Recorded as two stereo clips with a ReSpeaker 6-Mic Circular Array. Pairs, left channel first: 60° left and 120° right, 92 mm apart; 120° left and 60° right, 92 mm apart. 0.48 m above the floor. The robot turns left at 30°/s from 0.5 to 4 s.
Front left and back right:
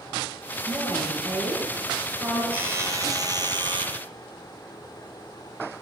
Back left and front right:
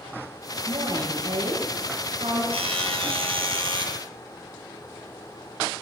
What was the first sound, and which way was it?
A woman speaking, straight ahead.